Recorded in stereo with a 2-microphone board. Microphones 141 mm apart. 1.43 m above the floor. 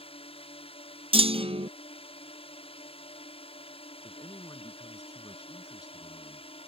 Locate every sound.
0.0 s a drone: 45° left (ahead or behind)
1.1 s a clunk: 45° right (ahead or behind)
4.0 s a man speaking: 30° left (ahead or behind)